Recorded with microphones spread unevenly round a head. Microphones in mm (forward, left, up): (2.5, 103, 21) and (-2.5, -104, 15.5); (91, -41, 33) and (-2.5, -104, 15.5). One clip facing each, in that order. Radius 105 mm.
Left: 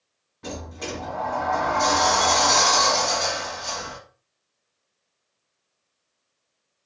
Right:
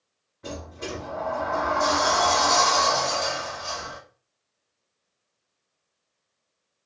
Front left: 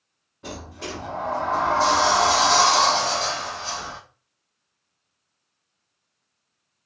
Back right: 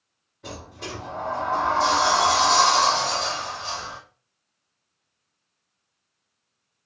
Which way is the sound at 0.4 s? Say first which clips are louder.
Left 1 dB, front left 2 dB; 80° left.